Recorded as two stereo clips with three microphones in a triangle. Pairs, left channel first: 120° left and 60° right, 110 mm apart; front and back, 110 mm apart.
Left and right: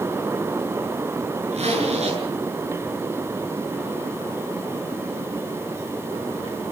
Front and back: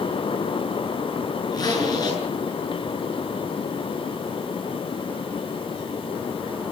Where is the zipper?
50° right, 8 m.